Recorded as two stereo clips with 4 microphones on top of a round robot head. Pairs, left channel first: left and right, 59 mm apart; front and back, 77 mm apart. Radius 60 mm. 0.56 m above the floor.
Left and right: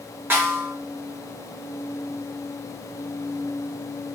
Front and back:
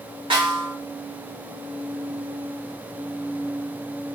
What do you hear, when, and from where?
0.3 s a snare drum: 145° right, 2 m